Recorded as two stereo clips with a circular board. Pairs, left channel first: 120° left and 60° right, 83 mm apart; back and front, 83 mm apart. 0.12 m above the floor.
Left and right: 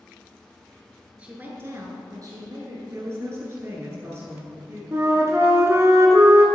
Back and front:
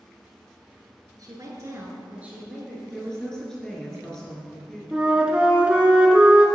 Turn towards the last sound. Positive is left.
turn(degrees=-70)